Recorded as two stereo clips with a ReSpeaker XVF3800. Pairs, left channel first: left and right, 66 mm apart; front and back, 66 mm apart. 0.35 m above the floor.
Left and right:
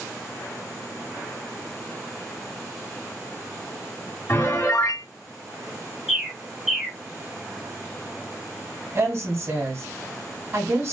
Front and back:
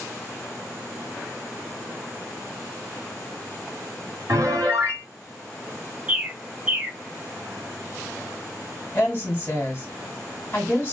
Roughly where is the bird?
Behind.